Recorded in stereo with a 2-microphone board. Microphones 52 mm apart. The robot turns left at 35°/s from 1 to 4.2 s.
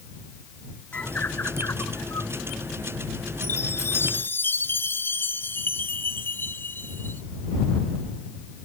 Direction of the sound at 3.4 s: 55° left (ahead or behind).